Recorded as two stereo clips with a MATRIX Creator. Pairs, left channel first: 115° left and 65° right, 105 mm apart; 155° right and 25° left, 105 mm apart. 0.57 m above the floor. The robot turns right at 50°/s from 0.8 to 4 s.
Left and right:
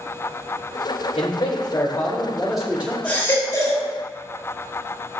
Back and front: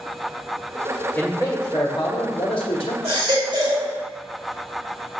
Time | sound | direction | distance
1.1 | a man speaking | 130° left | 1.4 m
3.0 | a baby crying | 30° left | 3 m